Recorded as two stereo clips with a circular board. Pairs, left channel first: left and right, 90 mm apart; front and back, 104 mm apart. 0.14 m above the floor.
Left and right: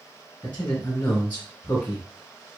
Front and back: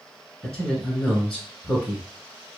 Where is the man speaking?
80° left, 1.1 m.